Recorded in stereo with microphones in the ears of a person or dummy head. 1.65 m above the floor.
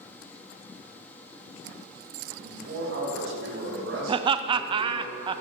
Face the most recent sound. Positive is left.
turn(degrees=-30)  # may be behind; listen again after turning